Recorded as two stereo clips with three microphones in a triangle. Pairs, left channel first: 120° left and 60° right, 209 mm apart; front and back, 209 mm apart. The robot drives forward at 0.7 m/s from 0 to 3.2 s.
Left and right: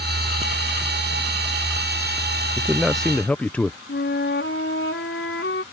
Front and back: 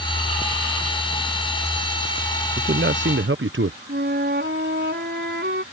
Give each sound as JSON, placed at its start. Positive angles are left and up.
{"t": 2.6, "sound": "a man speaking", "azimuth_deg": -135}
{"t": 3.9, "sound": "a flute", "azimuth_deg": 145}